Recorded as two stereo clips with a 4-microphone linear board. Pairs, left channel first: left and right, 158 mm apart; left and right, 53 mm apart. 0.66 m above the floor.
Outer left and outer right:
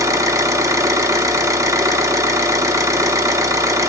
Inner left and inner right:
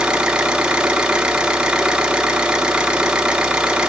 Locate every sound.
0.0 s an engine running: 20° right (ahead or behind), 0.9 m